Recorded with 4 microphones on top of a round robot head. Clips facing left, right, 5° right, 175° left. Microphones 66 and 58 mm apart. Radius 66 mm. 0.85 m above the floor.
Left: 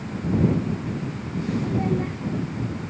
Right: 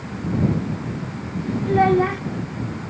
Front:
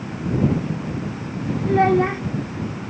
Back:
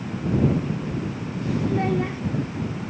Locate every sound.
1.7 s a child speaking: 60° right